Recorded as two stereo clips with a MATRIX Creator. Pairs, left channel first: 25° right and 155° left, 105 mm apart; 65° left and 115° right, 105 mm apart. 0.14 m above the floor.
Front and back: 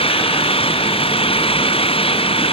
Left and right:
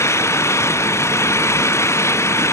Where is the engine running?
5° left.